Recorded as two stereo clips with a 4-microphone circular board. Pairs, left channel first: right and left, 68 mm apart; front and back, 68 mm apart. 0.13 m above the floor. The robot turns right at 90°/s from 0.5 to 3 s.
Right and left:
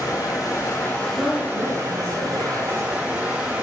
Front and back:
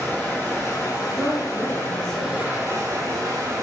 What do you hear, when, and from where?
0.0 s running water: 65° right, 1.1 m; by 3.6 s 160° left, 1.1 m
1.1 s a woman speaking: 95° left, 1.9 m; by 2.4 s 145° right, 1.9 m